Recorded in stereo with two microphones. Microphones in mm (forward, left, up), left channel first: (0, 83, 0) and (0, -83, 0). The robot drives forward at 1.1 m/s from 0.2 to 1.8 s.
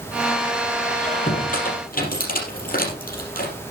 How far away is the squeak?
About 4.5 m.